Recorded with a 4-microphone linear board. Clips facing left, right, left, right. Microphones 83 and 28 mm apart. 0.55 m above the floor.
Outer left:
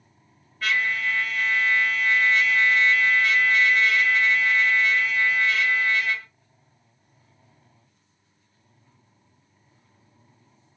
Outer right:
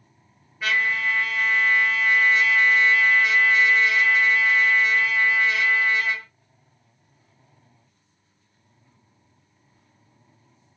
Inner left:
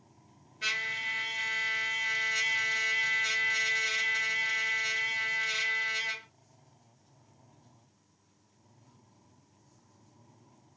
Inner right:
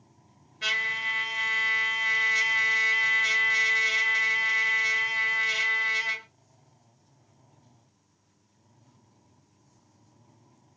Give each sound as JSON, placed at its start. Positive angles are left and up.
{"t": 0.6, "sound": "a trumpet", "side_deg": -10, "distance_m": 1.8}